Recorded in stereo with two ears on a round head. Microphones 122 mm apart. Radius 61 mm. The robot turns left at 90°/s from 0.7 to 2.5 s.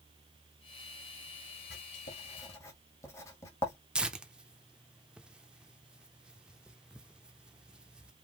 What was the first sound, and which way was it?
Writing, 85° left.